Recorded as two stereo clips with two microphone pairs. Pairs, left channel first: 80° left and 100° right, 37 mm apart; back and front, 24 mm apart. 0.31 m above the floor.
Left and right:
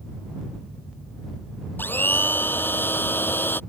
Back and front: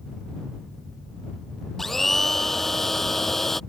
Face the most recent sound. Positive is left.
turn(degrees=100)